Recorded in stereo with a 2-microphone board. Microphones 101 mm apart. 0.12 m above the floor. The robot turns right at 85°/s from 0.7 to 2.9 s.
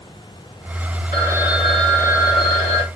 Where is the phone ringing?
45° right, 2.5 m; by 2.9 s 105° left, 2.5 m.